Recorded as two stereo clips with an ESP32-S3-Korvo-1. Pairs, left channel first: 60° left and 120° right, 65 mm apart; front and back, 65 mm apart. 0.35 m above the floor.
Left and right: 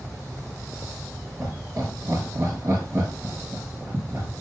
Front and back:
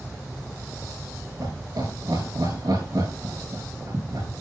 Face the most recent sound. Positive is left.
turn(degrees=-165)